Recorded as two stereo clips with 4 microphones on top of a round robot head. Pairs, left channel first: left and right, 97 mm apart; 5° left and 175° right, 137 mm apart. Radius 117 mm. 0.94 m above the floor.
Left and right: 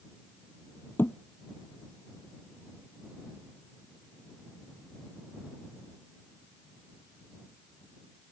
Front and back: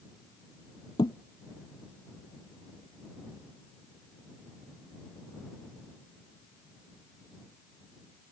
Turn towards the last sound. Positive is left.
turn(degrees=40)